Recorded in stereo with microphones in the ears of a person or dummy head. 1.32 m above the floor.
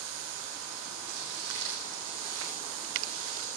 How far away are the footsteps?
About 3 m.